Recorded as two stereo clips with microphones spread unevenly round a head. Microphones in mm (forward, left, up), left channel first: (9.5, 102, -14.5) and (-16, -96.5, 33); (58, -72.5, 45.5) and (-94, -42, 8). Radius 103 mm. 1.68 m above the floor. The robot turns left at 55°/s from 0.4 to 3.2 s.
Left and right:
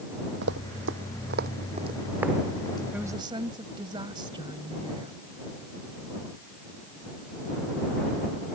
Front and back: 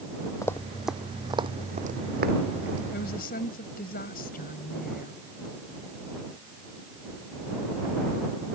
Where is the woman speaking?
15° right; by 5.1 s 30° right.